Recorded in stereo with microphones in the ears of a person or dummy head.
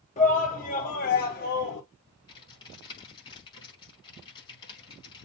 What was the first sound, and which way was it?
A shout, 40° left (ahead or behind).